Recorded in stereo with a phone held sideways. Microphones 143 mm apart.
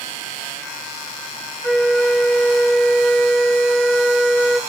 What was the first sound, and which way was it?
A flute, centre (ahead or behind).